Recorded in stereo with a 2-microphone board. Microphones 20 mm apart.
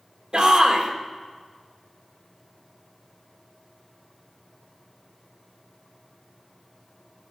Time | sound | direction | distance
0.3 | a shout | 55° right (ahead or behind) | 1.8 m